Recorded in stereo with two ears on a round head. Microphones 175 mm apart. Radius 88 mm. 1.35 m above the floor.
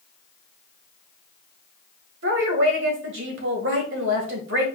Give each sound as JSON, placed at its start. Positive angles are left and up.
{"t": 2.2, "sound": "a woman speaking", "side_deg": -70, "distance_m": 1.7}